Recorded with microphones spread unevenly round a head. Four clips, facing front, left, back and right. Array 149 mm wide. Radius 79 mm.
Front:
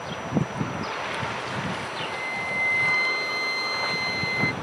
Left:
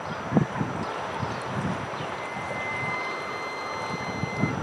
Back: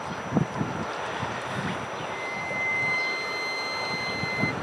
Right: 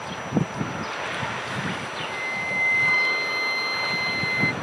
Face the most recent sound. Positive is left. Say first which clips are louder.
# right 1 dB, front 1 dB
turn(degrees=-60)